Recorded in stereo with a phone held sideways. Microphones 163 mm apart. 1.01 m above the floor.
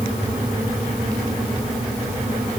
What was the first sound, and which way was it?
A fan, centre (ahead or behind).